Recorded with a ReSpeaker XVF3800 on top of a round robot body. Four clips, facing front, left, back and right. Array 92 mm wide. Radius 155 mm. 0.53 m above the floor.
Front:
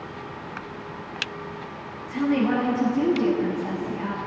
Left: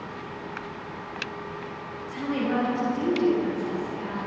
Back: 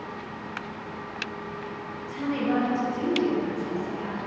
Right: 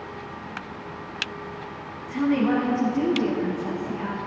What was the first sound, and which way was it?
A woman speaking, 55° right.